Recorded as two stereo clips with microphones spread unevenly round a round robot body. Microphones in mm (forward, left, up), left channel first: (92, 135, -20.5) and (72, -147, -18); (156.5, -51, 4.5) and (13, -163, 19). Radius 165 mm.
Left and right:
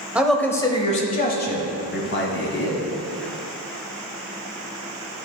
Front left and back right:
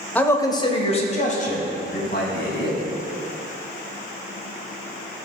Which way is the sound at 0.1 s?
15° right.